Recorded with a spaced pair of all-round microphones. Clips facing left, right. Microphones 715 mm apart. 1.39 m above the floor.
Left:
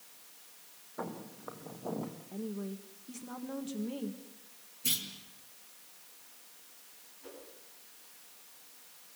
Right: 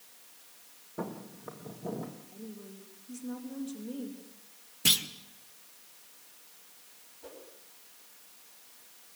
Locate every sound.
1.0 s footsteps: 55° right (ahead or behind), 4 m; by 2.2 s 45° right (ahead or behind), 3.5 m
2.3 s a woman speaking: 80° left, 2 m
4.8 s a clunk: 85° right, 1.5 m
7.2 s a whoosh: 70° right (ahead or behind), 7 m